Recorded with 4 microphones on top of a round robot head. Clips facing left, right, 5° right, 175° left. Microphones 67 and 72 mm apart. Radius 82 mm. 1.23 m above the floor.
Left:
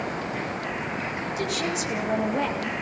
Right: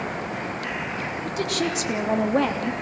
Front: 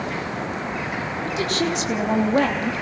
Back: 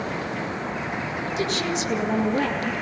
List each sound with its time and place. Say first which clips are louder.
1.2 s a woman speaking: right 3 dB, front 3 dB; 50° right, 3 m